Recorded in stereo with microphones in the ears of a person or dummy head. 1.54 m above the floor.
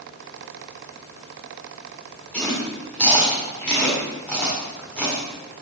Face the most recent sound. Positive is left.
turn(degrees=5)  # may be behind; listen again after turning